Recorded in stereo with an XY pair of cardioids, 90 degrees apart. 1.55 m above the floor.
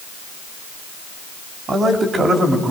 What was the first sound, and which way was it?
A man speaking, 50° right.